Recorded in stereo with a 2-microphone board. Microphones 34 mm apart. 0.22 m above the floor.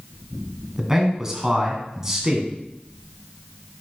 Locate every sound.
0.8 s a man speaking: 15° right (ahead or behind), 2 m